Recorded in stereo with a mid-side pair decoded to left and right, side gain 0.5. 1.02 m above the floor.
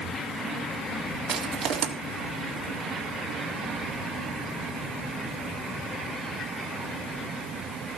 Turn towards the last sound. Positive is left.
turn(degrees=-65)